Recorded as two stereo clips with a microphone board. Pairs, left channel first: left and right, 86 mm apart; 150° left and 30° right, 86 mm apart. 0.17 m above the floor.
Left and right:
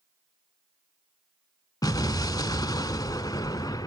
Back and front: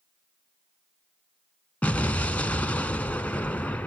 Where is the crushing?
I don't hear crushing.